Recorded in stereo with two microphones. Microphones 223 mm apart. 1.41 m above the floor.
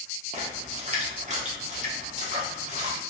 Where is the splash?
30° right (ahead or behind), 0.6 m.